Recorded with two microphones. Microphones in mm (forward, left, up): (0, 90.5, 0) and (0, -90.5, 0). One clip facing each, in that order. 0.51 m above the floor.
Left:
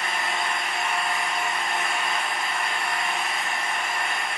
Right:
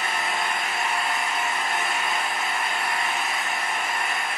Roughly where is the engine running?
Centre.